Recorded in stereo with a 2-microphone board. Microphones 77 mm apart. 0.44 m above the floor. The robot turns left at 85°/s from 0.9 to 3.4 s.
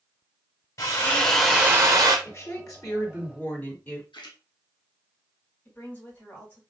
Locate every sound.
0.8 s a drill: 45° left, 1.5 m; by 2.1 s 65° right, 1.5 m
2.2 s a woman speaking: 135° left, 1.7 m; by 4.0 s 35° left, 1.7 m
4.1 s a splash: 80° left, 1.3 m
5.7 s a woman speaking: 20° left (ahead or behind), 3 m